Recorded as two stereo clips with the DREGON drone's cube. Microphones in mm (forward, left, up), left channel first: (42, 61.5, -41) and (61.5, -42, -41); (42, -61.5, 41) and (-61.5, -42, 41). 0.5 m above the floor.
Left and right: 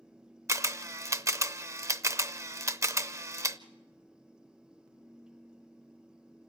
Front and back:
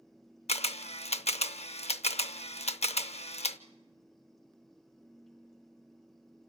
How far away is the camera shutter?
About 0.6 m.